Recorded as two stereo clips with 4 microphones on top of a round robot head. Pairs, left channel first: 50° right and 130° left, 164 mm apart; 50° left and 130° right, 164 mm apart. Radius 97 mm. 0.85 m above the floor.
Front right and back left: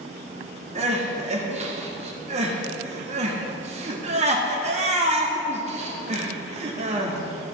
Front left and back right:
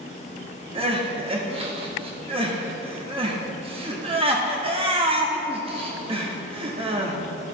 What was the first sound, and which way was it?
Crying, 175° left.